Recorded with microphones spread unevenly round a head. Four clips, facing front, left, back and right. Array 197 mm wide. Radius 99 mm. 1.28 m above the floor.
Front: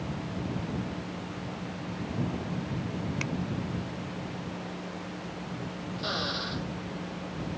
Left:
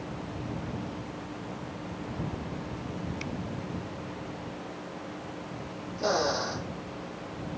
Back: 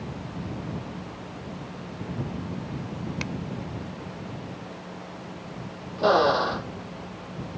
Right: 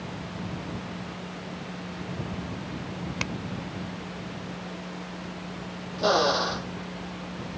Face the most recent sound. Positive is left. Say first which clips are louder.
# right 5 dB, back 16 dB
turn(degrees=-165)